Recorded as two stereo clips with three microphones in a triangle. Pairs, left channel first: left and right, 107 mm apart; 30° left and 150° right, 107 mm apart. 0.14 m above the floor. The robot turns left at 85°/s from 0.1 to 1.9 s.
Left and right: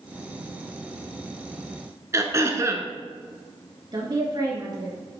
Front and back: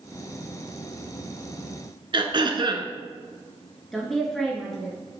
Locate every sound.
2.1 s throat clearing: 140° right, 0.7 m
3.9 s a woman speaking: 55° right, 1.6 m